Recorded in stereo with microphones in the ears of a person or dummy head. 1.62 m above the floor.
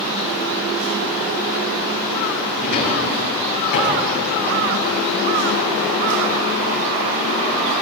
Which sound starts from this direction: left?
A drawer, at 2.6 s.